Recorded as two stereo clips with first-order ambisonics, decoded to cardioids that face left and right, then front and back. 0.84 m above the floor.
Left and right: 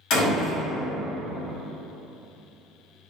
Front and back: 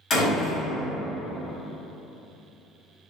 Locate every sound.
0.1 s a door slam: 60° left, 1.7 m